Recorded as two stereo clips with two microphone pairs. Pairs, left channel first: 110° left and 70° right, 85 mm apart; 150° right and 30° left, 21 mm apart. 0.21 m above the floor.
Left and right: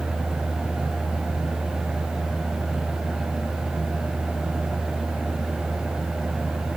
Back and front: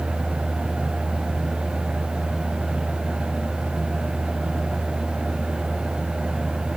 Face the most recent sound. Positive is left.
No sound to turn to.